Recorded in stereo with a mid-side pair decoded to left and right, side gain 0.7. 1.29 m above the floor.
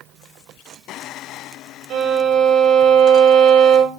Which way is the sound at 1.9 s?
50° right.